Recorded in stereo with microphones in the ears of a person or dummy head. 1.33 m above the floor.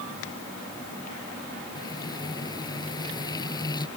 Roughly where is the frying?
Left.